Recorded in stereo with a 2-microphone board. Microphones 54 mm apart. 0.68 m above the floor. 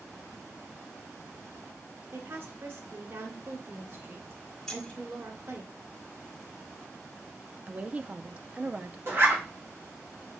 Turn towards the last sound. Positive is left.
turn(degrees=-45)  # may be behind; listen again after turning